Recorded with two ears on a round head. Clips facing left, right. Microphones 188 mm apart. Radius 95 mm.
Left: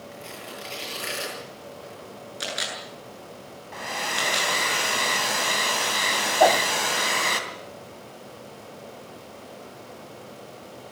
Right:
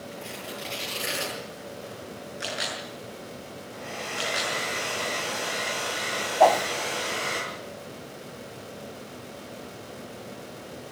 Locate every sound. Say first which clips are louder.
0.1 s tearing paper: right 2 dB; centre (ahead or behind), 9.5 m
2.4 s a camera shutter: even; 45° left (ahead or behind), 8 m
3.7 s a hair dryer: left 4 dB; 80° left, 3.5 m
6.4 s a whoosh: even; 10° left (ahead or behind), 0.7 m